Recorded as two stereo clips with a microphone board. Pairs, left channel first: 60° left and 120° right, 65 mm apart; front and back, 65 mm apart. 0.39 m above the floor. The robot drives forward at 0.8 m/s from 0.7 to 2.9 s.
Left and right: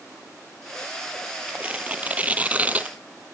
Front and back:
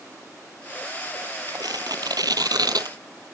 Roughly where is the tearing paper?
Behind.